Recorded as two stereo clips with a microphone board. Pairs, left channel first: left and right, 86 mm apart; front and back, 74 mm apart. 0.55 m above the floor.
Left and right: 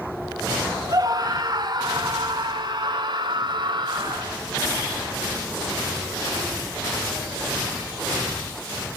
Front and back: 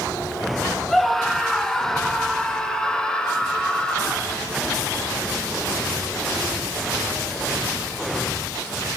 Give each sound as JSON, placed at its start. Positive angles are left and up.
{"t": 0.9, "sound": "a scream", "azimuth_deg": -85, "distance_m": 1.7}